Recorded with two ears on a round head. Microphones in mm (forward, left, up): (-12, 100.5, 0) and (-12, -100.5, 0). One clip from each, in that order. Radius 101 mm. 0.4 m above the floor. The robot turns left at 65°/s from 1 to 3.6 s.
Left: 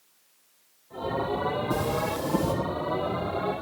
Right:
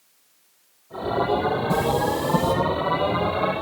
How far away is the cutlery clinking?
About 9 m.